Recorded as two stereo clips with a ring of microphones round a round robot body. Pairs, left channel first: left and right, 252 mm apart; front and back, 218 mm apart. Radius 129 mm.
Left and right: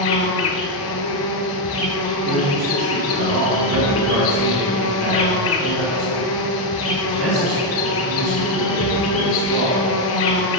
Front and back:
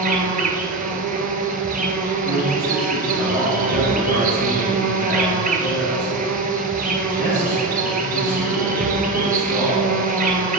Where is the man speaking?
95° right, 2.5 m.